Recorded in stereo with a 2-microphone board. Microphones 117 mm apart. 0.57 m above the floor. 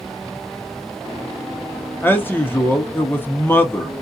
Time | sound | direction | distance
2.0 | a man speaking | 20° left (ahead or behind) | 0.7 m